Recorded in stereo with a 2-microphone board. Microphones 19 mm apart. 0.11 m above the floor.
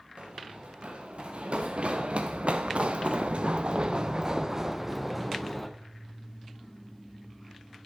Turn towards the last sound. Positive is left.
turn(degrees=5)  # may be behind; listen again after turning